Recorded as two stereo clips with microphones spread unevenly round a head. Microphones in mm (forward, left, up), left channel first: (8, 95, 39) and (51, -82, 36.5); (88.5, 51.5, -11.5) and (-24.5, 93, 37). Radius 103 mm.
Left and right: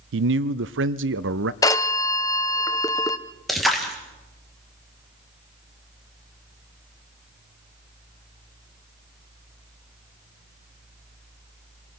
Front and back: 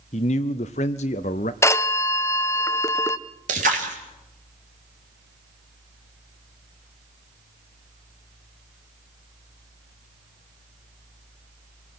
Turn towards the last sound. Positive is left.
turn(degrees=-165)